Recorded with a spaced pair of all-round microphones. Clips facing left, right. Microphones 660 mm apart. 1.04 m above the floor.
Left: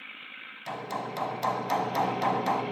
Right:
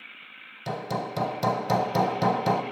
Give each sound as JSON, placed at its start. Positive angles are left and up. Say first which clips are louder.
{"t": 0.7, "sound": "hammering", "louder": "right 5 dB", "side_deg": -65, "distance_m": 1.8}